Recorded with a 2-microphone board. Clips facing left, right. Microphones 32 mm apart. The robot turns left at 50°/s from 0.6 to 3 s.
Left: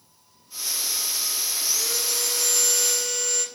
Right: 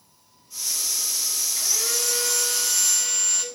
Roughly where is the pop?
I don't hear a pop.